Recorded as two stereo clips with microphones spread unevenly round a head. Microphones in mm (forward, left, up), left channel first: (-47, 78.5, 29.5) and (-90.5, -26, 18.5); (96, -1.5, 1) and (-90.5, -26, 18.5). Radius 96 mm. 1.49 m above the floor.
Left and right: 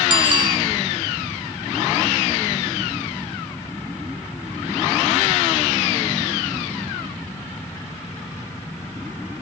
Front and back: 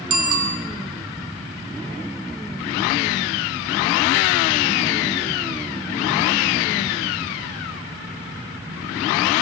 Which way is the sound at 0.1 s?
160° right.